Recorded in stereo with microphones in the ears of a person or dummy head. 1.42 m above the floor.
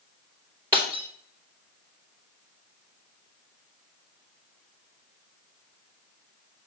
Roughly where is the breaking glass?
Centre.